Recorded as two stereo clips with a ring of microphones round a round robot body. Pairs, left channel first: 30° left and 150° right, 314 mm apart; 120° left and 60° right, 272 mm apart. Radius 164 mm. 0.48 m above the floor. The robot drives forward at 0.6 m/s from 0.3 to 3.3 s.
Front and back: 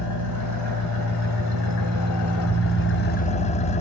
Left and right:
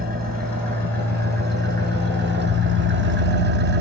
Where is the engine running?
5° right, 2 m; by 3.8 s 30° right, 0.5 m.